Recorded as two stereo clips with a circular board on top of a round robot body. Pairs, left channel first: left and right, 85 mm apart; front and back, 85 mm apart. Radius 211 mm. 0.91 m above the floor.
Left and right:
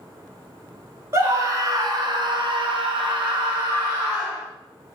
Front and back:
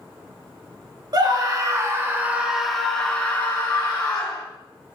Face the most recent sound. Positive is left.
turn(degrees=-45)